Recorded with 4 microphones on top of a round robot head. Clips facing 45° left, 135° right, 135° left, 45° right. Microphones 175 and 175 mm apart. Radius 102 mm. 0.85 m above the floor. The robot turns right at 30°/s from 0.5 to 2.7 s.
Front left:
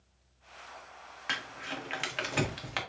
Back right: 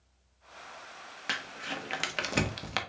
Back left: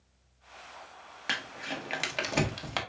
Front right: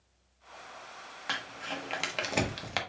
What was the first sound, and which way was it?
Crumpling, 165° right.